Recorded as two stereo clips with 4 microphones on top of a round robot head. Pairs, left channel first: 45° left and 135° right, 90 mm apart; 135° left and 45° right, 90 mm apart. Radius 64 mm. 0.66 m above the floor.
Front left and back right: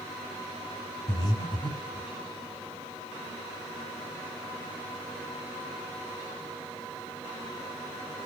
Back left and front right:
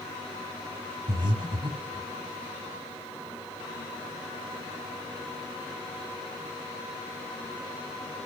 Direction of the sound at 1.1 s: Straight ahead.